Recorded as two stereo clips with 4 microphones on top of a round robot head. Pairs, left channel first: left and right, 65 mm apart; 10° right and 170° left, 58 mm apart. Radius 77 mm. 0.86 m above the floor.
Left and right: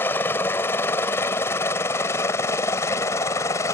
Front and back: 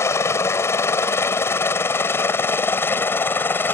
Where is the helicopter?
30° left; by 3.7 s 40° left.